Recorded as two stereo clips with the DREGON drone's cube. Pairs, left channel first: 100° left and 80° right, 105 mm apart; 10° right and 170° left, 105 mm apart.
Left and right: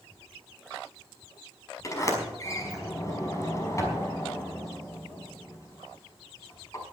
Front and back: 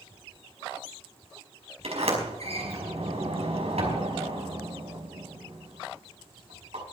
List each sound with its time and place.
1.8 s a sliding door: 160° left, 5 m